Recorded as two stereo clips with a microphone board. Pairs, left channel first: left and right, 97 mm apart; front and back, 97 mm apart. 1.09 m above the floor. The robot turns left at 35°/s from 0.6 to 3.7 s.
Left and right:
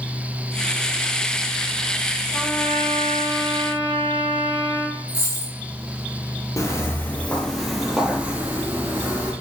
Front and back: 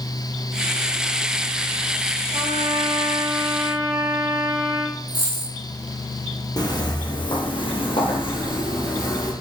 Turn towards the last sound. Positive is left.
turn(degrees=-35)